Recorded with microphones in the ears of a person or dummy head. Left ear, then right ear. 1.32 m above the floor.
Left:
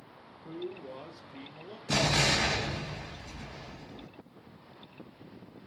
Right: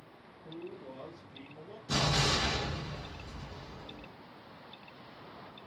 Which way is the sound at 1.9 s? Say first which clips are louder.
Left 3 dB; 45° left (ahead or behind).